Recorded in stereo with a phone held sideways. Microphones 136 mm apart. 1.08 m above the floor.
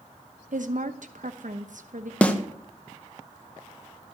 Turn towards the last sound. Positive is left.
turn(degrees=10)  # may be behind; listen again after turning